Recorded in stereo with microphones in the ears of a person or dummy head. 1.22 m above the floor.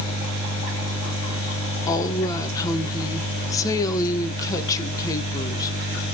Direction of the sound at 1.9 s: 20° left (ahead or behind).